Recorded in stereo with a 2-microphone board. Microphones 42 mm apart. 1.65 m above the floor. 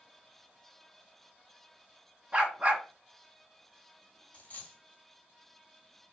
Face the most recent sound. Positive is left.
turn(degrees=35)  # may be behind; listen again after turning